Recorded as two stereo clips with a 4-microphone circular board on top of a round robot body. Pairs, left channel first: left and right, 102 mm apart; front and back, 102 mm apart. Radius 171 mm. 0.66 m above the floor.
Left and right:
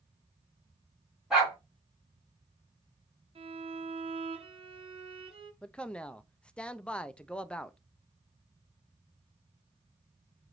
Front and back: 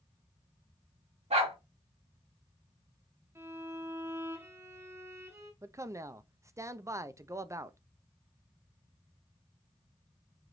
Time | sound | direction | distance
1.3 | a dog barking | 175° right | 2.5 m
3.4 | a violin | 115° right | 1.1 m
5.6 | a man speaking | 160° left | 0.6 m